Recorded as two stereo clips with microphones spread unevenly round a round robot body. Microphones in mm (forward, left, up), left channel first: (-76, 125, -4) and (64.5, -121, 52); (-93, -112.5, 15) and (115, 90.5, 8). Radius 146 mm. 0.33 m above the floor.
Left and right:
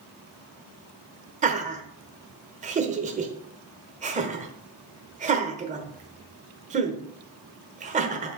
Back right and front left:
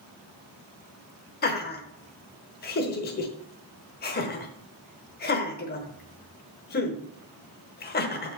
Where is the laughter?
125° right, 1.1 m.